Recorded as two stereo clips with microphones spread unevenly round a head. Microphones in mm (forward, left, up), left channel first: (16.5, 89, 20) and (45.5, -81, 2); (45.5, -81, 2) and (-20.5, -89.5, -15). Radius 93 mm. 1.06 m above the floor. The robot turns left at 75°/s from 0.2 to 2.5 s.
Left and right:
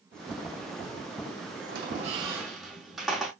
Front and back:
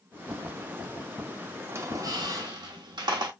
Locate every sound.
1.7 s a squeak: 110° right, 0.9 m; by 3.3 s 170° right, 0.9 m